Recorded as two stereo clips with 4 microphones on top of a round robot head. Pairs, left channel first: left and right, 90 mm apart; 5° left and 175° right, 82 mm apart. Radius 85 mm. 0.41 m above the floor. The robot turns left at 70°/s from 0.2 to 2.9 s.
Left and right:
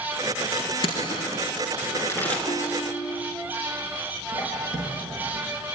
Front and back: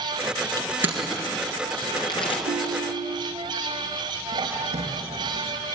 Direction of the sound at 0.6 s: 135° left.